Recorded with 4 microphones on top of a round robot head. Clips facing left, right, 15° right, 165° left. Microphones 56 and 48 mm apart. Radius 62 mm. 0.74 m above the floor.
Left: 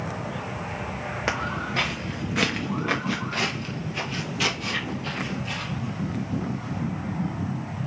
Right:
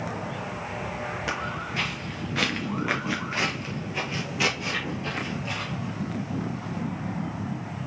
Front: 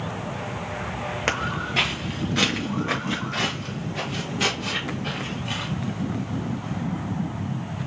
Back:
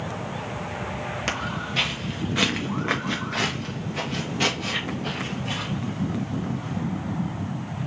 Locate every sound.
1.3 s footsteps: 40° left, 0.9 m; by 6.8 s 145° right, 2.5 m